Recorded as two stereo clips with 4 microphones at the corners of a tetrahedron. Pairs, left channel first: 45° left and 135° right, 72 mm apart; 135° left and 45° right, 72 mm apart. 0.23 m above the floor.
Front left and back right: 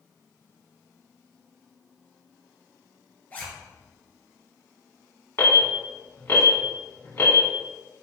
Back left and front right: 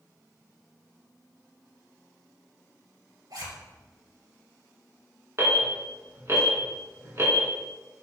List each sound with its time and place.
3.3 s a zipper: 20° right, 1.9 m
5.4 s an alarm: 5° right, 2 m